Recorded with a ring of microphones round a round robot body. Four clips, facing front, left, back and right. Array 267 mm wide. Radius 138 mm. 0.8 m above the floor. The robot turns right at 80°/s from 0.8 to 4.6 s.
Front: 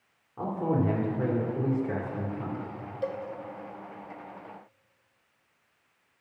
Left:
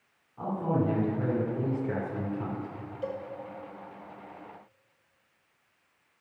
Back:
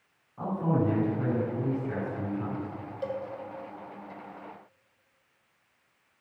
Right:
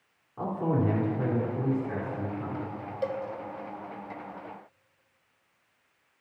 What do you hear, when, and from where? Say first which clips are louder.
0.4 s a man speaking: right 1 dB, even; 35° right, 2.5 m; by 2.7 s 115° left, 2.5 m
3.0 s a cowbell: right 4 dB, front 1 dB; 90° right, 0.9 m; by 3.2 s 75° right, 0.9 m